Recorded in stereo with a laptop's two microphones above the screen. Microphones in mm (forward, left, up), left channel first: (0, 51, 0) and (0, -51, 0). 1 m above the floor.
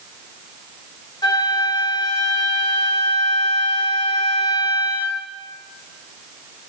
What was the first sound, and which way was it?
A flute, 45° left (ahead or behind).